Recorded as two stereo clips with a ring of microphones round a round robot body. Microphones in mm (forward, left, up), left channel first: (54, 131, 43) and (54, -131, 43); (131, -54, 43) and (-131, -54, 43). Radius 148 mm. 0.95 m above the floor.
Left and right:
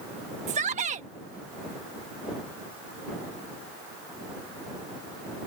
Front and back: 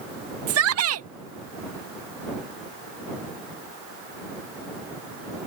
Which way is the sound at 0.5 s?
155° right.